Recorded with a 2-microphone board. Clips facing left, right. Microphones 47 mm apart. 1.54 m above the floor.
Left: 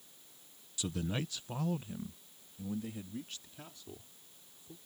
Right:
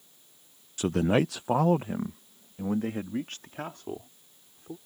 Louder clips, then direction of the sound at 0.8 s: Right 13 dB; 45° right (ahead or behind).